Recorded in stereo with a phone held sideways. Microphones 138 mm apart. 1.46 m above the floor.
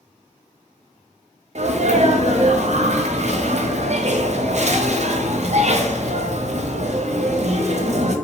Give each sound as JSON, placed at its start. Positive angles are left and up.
{"t": 1.6, "sound": "a sneeze", "side_deg": -55, "distance_m": 0.6}